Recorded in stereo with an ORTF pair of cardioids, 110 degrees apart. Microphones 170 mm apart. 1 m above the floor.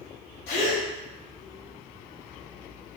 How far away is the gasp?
About 1.3 m.